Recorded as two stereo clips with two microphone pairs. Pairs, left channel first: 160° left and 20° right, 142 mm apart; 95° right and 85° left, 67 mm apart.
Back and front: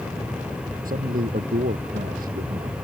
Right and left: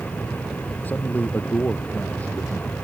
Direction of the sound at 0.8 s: 30° right.